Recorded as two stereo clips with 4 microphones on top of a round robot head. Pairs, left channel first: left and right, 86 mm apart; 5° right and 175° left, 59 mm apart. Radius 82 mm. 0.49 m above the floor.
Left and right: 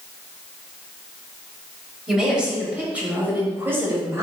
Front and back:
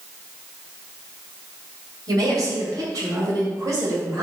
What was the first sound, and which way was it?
A woman speaking, 175° right.